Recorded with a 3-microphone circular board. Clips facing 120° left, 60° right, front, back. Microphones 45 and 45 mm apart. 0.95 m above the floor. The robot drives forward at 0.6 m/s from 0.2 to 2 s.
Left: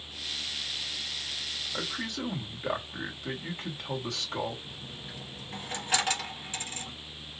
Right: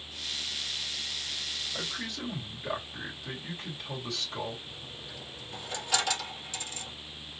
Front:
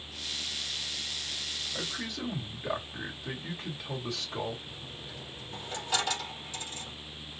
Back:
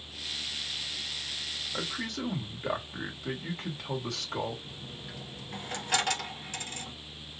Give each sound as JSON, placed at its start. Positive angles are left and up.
{"t": 1.7, "sound": "a man speaking", "azimuth_deg": 160, "distance_m": 2.5}
{"t": 4.7, "sound": "a dropped coin", "azimuth_deg": 165, "distance_m": 2.0}